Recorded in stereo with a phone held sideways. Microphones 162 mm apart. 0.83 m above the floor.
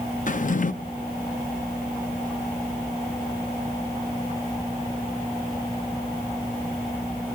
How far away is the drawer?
About 0.5 m.